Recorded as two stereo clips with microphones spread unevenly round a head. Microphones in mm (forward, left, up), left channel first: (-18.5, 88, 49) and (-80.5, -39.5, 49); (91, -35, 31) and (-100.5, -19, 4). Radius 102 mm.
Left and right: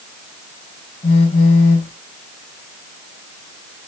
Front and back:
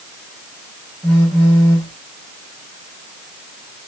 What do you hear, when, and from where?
1.0 s a phone buzzing: 85° left, 1.3 m